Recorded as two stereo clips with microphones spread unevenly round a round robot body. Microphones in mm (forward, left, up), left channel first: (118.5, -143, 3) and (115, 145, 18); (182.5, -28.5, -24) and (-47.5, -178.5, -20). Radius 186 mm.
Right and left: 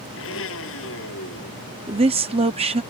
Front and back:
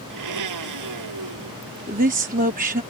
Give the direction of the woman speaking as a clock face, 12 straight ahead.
7 o'clock.